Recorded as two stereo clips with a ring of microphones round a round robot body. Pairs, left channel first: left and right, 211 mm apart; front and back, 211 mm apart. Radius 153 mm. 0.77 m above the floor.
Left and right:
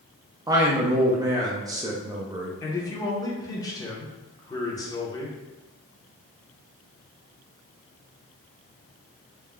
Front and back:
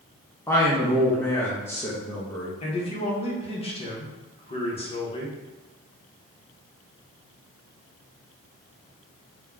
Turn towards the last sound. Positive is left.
turn(degrees=30)